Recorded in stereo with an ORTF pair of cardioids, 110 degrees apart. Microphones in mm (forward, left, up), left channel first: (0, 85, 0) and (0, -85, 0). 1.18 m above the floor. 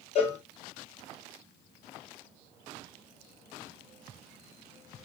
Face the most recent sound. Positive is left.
turn(degrees=40)